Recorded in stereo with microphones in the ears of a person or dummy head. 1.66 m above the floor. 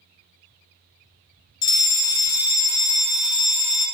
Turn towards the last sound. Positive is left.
turn(degrees=25)  # may be behind; listen again after turning